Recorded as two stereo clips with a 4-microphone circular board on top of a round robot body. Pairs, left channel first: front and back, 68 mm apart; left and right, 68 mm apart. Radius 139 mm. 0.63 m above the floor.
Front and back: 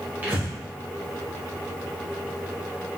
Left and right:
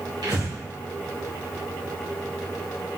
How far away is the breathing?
About 1.5 m.